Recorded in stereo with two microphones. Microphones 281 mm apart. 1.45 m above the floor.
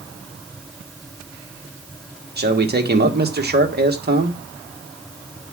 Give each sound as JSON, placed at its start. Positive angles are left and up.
{"t": 2.4, "sound": "a man speaking", "side_deg": -35, "distance_m": 1.7}